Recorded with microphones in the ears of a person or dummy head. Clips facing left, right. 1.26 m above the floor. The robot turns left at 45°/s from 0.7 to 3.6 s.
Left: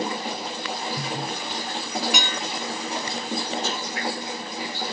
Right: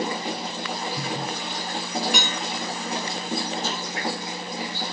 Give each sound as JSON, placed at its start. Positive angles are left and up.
{"t": 2.1, "sound": "dishes clattering", "side_deg": -35, "distance_m": 2.0}
{"t": 3.6, "sound": "tapping", "side_deg": 60, "distance_m": 1.1}